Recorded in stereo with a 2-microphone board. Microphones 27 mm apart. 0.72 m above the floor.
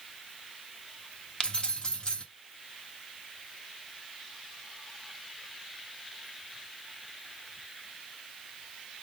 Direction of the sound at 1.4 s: 40° left (ahead or behind).